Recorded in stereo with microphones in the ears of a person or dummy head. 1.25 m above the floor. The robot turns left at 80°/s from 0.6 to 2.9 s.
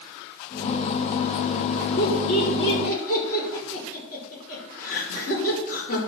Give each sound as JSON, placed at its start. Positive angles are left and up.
{"t": 2.0, "sound": "laughter", "side_deg": 60, "distance_m": 5.0}